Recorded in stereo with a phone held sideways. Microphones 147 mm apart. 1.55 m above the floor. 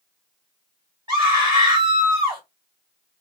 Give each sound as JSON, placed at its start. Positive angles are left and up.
{"t": 1.1, "sound": "a scream", "side_deg": -30, "distance_m": 1.9}